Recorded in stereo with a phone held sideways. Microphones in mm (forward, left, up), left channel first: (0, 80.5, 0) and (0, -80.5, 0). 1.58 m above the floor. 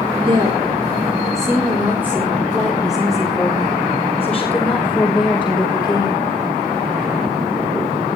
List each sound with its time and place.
0.3 s a woman speaking: 35° right (ahead or behind), 3.5 m; by 6.3 s 20° left (ahead or behind), 6.5 m